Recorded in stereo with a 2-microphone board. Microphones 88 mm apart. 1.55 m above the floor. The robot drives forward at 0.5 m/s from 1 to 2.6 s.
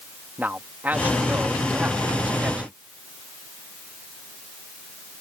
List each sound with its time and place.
0.4 s a man speaking: 20° right (ahead or behind); by 2.7 s 15° right (ahead or behind)